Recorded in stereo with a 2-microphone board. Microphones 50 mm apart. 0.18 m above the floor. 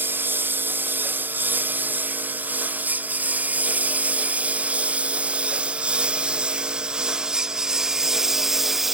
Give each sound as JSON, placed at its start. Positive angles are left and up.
{"t": 0.0, "sound": "a lawn mower", "side_deg": -40}